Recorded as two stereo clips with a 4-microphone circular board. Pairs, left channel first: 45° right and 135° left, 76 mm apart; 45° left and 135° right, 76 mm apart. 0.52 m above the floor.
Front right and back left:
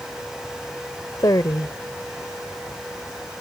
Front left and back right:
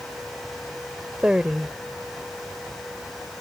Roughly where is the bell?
I don't hear a bell.